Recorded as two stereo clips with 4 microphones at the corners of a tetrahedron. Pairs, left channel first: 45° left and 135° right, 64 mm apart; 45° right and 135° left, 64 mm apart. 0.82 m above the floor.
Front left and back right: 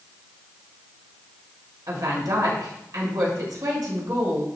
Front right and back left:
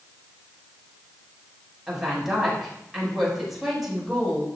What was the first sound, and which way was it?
A woman speaking, 140° right.